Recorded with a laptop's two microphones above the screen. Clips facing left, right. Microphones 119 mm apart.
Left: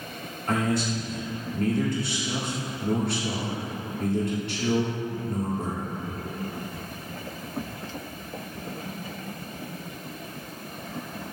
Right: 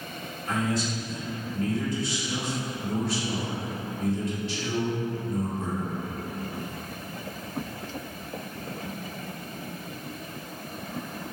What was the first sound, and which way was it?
A man speaking, 65° left (ahead or behind).